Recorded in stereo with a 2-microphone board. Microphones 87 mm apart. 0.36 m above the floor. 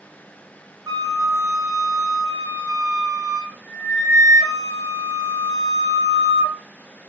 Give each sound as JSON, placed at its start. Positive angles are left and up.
{"t": 0.9, "sound": "a flute", "side_deg": -50, "distance_m": 1.1}